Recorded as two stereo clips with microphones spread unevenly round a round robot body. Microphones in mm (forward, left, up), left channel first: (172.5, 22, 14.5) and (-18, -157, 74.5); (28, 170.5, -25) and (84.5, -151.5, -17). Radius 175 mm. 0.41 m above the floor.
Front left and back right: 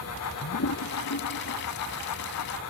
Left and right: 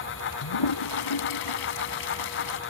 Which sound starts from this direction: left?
A toilet flushing, at 0.4 s.